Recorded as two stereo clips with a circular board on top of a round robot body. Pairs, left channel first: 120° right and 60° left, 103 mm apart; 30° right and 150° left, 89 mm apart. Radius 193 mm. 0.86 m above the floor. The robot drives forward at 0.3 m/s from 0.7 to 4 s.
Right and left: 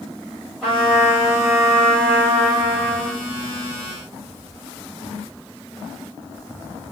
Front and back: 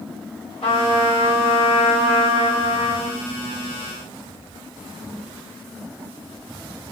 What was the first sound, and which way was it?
A trumpet, 25° right.